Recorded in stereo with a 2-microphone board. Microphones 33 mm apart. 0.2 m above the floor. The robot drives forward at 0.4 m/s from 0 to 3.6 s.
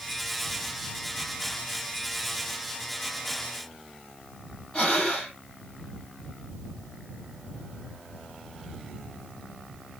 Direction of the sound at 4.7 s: 25° left (ahead or behind).